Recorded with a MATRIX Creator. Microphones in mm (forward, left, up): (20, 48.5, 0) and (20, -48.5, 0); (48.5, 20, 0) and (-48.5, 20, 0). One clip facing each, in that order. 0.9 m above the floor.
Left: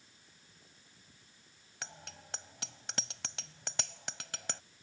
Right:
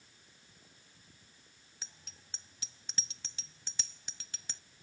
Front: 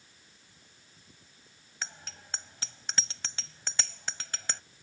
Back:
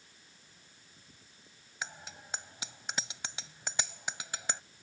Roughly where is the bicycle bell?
Left.